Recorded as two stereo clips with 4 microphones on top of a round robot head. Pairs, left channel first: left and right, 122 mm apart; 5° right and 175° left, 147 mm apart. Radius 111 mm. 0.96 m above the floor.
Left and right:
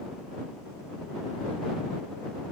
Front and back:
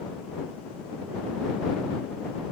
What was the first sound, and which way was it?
Only background noise.